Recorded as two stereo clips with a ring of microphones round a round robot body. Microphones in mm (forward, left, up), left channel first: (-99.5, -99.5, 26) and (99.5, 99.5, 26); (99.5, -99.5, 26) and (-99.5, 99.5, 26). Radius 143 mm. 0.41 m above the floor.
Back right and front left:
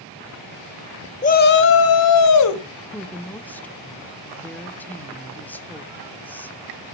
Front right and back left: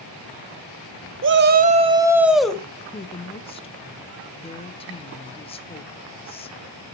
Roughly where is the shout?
Behind.